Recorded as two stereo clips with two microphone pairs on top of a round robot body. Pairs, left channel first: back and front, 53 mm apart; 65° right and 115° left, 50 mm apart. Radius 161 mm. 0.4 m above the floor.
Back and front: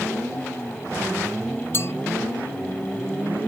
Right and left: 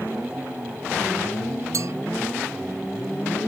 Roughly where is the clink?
Behind left.